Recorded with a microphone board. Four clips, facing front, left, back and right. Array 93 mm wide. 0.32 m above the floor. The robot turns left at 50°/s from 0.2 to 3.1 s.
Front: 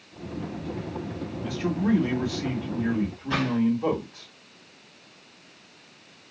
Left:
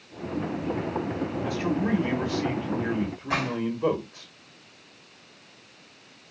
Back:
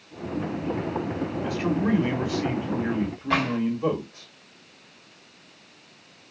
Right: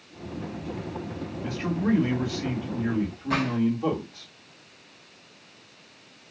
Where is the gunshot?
160° left, 2.5 m.